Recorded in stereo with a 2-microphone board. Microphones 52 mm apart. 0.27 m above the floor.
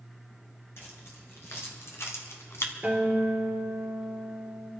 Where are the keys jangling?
55° left (ahead or behind), 3 m; by 2.7 s 60° left (ahead or behind), 1.5 m.